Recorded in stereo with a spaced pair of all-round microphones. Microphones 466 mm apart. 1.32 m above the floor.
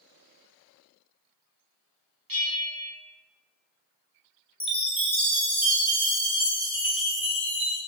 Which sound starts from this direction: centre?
A chime, at 4.6 s.